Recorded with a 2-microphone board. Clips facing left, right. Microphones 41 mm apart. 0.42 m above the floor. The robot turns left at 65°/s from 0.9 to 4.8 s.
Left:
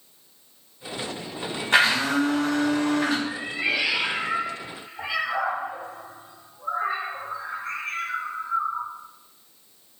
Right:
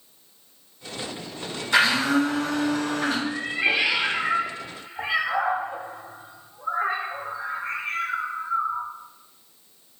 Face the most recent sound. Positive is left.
turn(degrees=-30)  # may be behind; listen again after turning